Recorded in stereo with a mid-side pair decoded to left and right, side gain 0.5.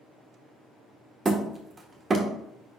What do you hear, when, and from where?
1.2 s hammering: 30° right, 1.6 m